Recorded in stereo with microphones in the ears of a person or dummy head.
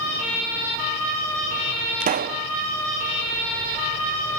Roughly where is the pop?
Right.